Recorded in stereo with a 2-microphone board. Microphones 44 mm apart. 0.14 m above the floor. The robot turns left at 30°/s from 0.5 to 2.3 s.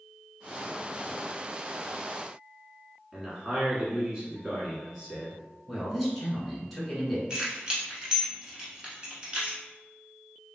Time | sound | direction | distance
3.1 | a man speaking | 20° right (ahead or behind) | 1.2 m
5.7 | a man speaking | 5° right (ahead or behind) | 1.3 m
7.3 | keys jangling | 20° right (ahead or behind) | 0.9 m